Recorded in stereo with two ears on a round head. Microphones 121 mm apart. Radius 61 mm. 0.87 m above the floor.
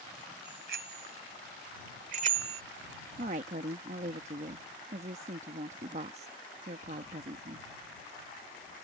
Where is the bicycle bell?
85° right; by 2.6 s 45° right (ahead or behind).